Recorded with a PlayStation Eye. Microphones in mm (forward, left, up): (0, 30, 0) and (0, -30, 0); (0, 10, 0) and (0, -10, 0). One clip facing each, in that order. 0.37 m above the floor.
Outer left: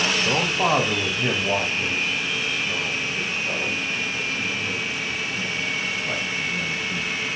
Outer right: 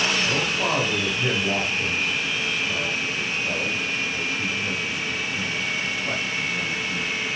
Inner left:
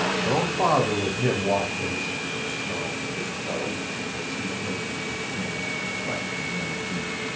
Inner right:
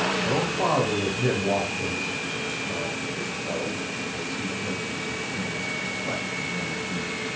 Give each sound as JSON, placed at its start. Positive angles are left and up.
{"t": 0.2, "sound": "a man speaking", "side_deg": 30, "distance_m": 2.0}